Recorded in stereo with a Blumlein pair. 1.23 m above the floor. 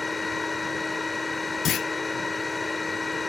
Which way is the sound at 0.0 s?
10° left.